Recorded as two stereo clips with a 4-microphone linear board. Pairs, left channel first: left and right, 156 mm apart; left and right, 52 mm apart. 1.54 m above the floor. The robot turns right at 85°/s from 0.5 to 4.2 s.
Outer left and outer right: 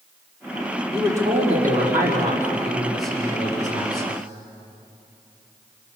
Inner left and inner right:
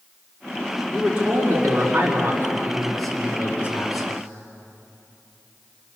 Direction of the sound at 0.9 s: Straight behind.